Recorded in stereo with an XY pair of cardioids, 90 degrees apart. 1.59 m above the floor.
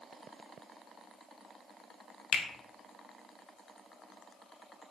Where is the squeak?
I don't hear a squeak.